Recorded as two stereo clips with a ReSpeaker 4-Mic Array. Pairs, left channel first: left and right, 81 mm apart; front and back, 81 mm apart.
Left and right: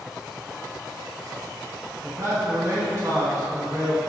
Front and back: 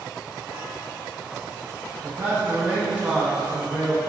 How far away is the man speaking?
About 1.0 m.